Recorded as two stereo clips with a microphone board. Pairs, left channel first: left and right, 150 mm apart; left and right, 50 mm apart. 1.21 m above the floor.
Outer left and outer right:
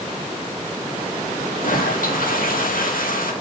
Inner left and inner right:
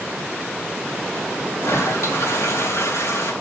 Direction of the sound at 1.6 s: 70° left (ahead or behind).